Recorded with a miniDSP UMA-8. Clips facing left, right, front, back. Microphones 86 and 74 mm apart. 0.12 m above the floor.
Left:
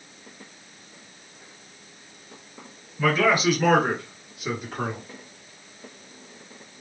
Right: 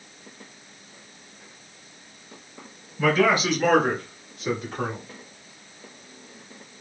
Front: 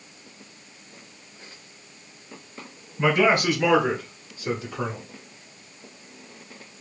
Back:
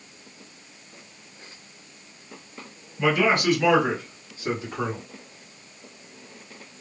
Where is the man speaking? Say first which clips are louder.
Right 1 dB, front 1 dB; 5° right, 1.5 m; by 5.0 s 160° left, 2.0 m.